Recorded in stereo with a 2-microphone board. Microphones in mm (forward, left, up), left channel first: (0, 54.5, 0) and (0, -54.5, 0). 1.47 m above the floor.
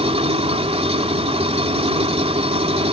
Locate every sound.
0.0 s an engine running: 65° right (ahead or behind)